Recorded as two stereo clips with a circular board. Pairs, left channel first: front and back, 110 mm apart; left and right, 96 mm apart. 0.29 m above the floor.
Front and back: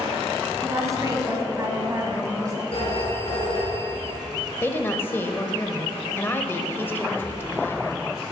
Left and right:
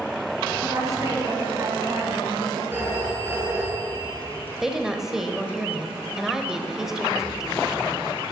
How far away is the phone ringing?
About 3 m.